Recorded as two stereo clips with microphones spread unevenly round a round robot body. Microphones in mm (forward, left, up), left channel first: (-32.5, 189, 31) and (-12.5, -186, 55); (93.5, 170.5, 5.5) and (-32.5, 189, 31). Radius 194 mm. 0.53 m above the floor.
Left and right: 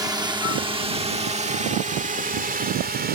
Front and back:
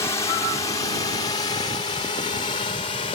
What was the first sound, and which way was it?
A drone, 10° right.